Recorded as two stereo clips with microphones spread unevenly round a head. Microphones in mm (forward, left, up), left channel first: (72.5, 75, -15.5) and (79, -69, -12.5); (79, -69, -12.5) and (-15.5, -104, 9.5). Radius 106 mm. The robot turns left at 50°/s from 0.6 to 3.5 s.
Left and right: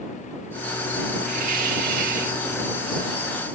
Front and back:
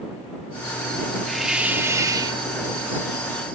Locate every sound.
1.3 s a hiss: 75° right; by 2.4 s 130° right